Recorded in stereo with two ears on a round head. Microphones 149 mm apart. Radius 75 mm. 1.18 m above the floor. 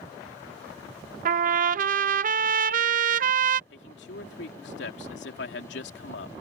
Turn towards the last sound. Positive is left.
turn(degrees=80)